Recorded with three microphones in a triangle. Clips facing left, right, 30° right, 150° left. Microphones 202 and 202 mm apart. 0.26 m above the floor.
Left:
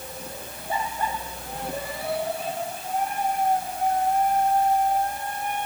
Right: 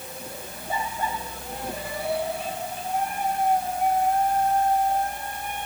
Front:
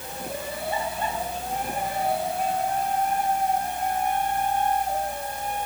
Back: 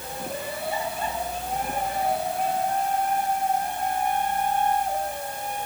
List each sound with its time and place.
Only background noise.